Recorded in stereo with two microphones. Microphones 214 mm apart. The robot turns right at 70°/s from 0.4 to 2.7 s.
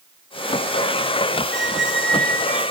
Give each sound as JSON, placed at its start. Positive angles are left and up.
{"t": 1.5, "sound": "a squeak", "azimuth_deg": -110, "distance_m": 2.0}